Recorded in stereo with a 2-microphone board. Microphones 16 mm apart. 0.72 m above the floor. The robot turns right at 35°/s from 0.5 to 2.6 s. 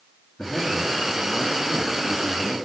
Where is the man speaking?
60° left, 4 m; by 2.6 s 130° left, 4 m.